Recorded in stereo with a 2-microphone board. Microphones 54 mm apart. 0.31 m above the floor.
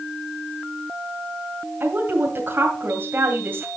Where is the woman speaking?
40° right (ahead or behind), 2 m.